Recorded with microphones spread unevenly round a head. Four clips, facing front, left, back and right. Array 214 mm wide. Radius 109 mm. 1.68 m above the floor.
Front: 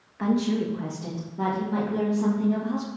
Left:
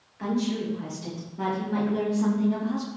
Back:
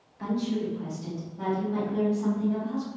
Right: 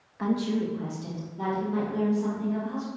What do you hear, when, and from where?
0.2 s a woman speaking: 25° right, 2.5 m; by 2.9 s 45° left, 4 m